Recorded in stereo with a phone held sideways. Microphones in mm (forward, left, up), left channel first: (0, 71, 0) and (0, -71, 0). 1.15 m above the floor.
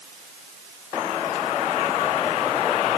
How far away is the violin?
No violin in this recording.